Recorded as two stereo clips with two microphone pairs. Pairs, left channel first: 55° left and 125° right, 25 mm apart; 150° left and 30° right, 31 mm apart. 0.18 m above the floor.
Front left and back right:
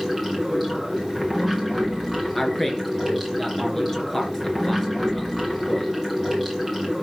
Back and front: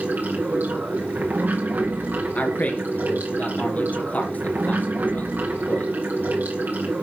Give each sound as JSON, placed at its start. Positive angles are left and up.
{"t": 0.0, "sound": "running water", "azimuth_deg": -25, "distance_m": 3.5}
{"t": 2.4, "sound": "a man speaking", "azimuth_deg": 130, "distance_m": 2.5}